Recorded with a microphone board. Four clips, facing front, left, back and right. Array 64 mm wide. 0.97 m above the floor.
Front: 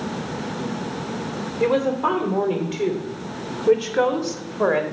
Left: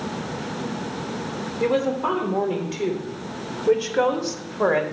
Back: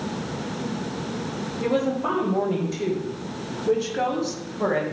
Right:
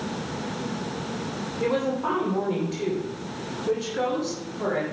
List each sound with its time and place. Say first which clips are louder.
1.6 s a woman speaking: left 3 dB, front 4 dB; 5° left, 3 m; by 4.8 s 40° left, 1.8 m